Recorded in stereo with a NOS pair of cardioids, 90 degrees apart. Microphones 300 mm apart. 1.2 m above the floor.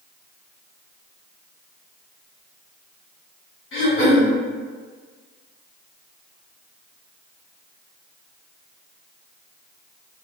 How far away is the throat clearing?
About 1.5 m.